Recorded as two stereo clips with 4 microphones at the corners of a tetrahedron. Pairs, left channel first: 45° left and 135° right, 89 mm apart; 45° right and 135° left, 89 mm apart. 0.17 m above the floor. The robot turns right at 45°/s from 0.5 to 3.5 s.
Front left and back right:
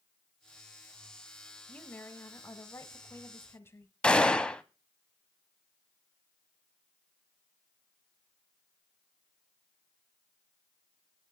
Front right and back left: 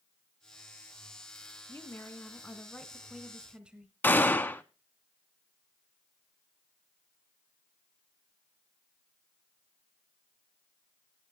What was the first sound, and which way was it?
A woman speaking, 10° right.